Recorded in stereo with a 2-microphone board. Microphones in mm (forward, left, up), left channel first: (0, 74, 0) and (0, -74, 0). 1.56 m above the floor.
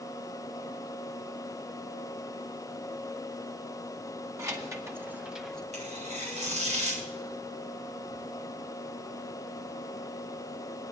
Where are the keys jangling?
25° right (ahead or behind), 1.4 m; by 5.6 s 5° left (ahead or behind), 0.8 m.